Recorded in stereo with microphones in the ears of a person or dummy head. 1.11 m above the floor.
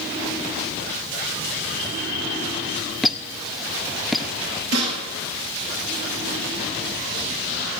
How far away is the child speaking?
No child speaking in this recording.